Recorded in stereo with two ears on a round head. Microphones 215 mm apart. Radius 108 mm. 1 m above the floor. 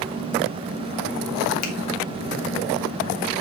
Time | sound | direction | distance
1.6 | a finger snap | 75° left (ahead or behind) | 2.0 m